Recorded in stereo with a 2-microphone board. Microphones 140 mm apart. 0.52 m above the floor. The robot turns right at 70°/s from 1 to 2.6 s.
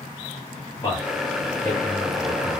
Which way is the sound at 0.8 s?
35° left (ahead or behind).